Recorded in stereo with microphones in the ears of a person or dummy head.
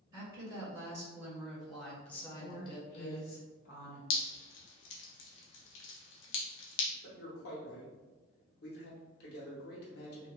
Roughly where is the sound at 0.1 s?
Right.